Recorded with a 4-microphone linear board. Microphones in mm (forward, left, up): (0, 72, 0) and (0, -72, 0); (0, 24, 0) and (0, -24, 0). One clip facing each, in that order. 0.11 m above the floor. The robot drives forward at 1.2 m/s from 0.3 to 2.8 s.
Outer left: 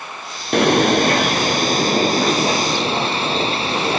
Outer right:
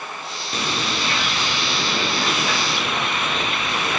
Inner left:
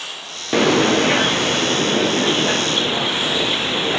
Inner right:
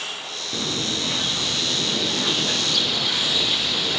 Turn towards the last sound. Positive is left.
turn(degrees=30)  # may be behind; listen again after turning